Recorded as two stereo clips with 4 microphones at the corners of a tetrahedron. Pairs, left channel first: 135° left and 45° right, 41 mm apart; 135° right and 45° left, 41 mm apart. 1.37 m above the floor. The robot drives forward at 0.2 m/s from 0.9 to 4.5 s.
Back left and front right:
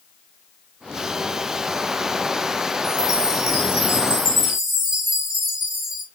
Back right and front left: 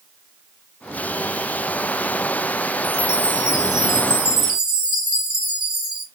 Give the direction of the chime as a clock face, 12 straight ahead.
12 o'clock.